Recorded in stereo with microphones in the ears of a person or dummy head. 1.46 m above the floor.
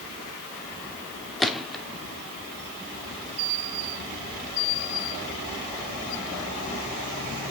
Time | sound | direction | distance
1.4 | a gunshot | centre (ahead or behind) | 0.8 m